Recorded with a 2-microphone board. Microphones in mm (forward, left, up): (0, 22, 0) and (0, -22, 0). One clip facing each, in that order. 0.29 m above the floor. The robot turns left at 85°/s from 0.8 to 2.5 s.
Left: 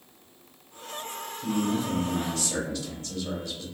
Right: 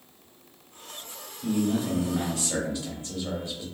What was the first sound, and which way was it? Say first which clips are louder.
A man speaking: right 1 dB; 15° left (ahead or behind).